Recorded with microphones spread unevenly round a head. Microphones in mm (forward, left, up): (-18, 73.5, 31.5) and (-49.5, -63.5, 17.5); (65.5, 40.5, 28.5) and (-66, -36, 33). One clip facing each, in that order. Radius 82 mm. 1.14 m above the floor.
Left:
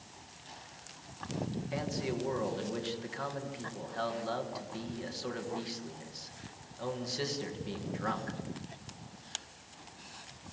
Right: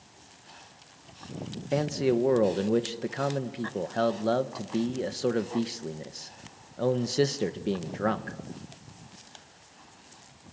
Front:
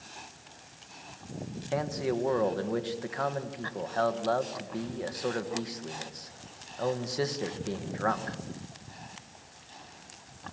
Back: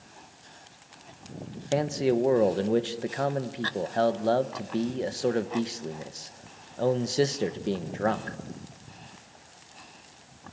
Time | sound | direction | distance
1.7 | a man speaking | 90° right | 1.2 m